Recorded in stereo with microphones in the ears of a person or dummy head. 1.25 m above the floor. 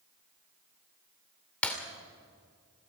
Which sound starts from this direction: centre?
Breaking glass, at 1.6 s.